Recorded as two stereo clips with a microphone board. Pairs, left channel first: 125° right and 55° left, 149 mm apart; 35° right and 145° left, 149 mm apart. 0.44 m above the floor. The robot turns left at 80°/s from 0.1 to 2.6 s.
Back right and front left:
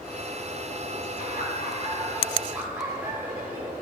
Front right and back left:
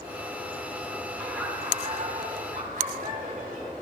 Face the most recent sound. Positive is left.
turn(degrees=135)